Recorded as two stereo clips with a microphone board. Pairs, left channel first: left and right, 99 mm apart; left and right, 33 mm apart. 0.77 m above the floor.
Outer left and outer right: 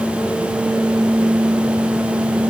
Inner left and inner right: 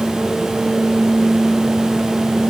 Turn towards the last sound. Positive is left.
No sound to turn to.